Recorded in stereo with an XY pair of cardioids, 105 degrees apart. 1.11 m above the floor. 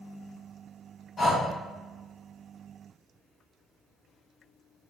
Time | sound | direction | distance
1.2 | breathing | 45° left | 1.1 m